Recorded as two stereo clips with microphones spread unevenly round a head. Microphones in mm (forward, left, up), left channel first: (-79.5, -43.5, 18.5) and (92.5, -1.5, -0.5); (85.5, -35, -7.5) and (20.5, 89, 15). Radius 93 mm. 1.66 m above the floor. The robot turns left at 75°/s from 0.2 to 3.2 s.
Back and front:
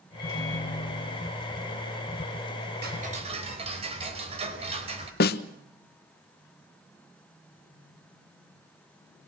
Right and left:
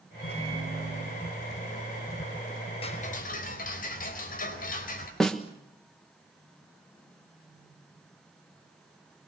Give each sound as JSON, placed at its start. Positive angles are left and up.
{"t": 0.2, "sound": "a microwave", "azimuth_deg": -135, "distance_m": 8.5}
{"t": 2.8, "sound": "ticking", "azimuth_deg": -15, "distance_m": 4.0}
{"t": 5.2, "sound": "a snare drum", "azimuth_deg": -155, "distance_m": 1.1}